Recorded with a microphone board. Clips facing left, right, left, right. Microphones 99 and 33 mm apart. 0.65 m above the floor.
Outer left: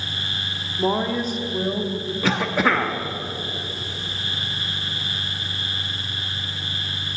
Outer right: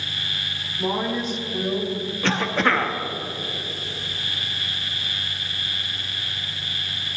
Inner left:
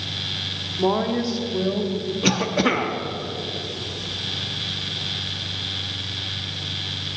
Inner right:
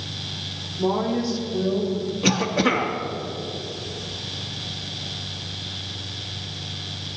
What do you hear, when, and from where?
0.8 s a woman speaking: 50° left (ahead or behind), 1.7 m; by 2.1 s 20° left (ahead or behind), 1.4 m
2.2 s a cough: 5° left (ahead or behind), 0.6 m